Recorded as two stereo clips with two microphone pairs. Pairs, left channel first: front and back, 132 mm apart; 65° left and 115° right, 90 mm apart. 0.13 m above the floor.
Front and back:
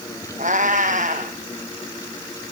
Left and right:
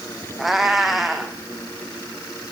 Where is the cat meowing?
160° left, 1.0 m.